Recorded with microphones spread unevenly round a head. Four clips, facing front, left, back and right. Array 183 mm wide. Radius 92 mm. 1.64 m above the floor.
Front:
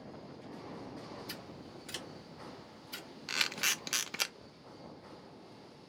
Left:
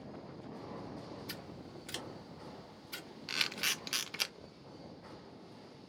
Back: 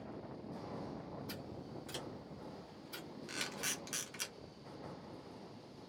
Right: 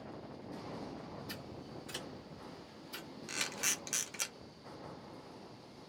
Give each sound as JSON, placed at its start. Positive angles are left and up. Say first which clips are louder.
{"t": 1.3, "sound": "scissors", "louder": "right 1 dB, even", "azimuth_deg": 95, "distance_m": 1.5}
{"t": 3.3, "sound": "a camera shutter", "louder": "left 2 dB, front 7 dB", "azimuth_deg": 10, "distance_m": 0.5}